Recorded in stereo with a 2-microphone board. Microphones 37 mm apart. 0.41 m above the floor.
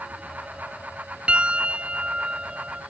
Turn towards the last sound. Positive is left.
turn(degrees=-30)  # may be behind; listen again after turning